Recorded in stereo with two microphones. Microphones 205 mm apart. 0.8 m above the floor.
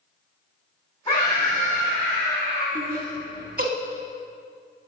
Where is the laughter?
50° right (ahead or behind), 1.6 m.